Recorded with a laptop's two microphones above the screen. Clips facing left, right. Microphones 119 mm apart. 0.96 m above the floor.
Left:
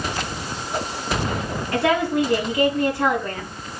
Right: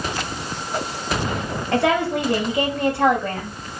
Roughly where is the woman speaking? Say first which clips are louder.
Right 1 dB; right.